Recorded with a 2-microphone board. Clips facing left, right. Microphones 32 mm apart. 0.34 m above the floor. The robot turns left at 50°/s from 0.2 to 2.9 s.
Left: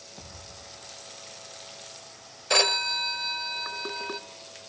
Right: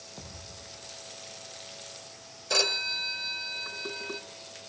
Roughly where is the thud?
Right.